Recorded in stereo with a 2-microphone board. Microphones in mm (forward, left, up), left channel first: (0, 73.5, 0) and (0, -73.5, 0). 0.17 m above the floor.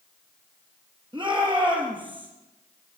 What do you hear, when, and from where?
1.1 s a shout: 35° right (ahead or behind), 4 m